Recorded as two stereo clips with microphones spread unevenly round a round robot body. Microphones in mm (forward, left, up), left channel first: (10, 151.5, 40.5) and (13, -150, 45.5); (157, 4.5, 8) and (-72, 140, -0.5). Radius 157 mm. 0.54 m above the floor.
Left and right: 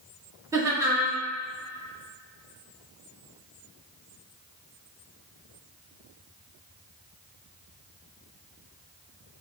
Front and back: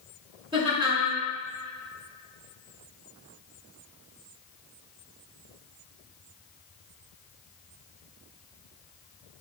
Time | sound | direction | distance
0.5 | laughter | 160° right | 1.0 m